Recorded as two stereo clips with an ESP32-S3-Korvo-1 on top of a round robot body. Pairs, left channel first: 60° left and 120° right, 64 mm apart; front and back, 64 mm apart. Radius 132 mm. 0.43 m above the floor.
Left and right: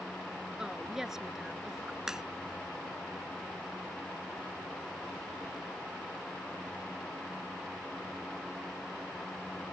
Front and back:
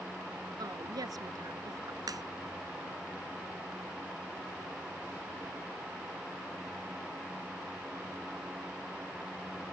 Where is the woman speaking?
160° left; by 2.0 s 150° left.